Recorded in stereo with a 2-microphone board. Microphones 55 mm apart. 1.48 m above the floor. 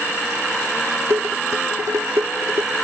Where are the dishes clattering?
70° right (ahead or behind).